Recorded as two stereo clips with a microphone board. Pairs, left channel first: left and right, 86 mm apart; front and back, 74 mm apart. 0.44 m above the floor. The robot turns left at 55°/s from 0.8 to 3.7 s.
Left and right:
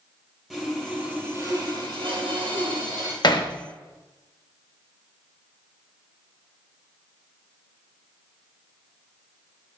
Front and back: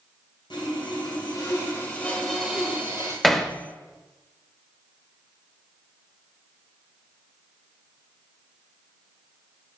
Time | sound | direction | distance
0.5 | sawing | 5° right | 2.5 m
3.2 | hammering | 90° left | 0.7 m